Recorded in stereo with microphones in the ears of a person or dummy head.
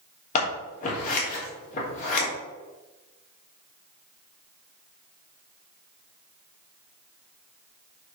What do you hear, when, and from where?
0.3 s scissors: 45° left (ahead or behind), 3 m